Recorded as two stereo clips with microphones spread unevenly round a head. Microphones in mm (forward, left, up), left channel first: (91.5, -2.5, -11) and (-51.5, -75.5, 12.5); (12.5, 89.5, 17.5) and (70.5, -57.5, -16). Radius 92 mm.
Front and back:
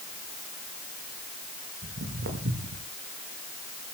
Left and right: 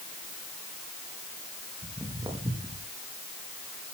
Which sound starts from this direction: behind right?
Footsteps, at 1.8 s.